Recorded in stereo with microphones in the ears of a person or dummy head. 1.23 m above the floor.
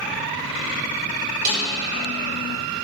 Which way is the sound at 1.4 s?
55° right (ahead or behind).